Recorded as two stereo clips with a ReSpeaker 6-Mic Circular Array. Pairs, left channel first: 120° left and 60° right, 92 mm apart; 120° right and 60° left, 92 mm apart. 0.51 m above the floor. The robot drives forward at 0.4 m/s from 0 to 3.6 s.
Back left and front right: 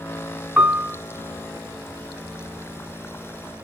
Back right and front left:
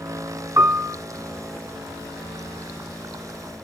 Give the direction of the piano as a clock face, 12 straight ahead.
12 o'clock.